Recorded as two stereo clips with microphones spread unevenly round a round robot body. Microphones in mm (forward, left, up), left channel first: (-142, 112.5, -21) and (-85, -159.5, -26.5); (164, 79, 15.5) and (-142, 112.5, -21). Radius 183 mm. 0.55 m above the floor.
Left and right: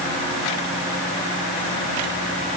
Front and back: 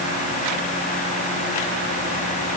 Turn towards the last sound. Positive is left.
No sound to turn to.